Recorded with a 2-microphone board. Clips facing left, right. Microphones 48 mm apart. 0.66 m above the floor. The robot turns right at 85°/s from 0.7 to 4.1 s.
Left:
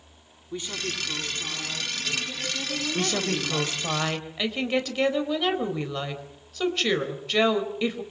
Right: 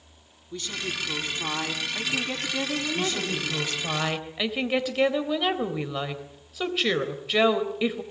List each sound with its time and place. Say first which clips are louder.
0.5 s a woman speaking: even; 160° left, 5.5 m; by 3.8 s 65° left, 5.5 m
3.0 s a woman speaking: left 1 dB; 90° left, 3.5 m; by 8.0 s 170° right, 3.5 m